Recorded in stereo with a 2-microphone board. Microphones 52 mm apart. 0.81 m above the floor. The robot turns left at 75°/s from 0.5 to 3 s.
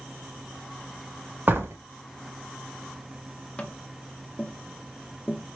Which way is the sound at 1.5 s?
40° right (ahead or behind).